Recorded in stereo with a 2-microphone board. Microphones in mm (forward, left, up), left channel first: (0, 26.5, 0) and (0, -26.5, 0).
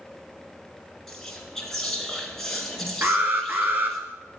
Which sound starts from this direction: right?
An alarm, at 3.0 s.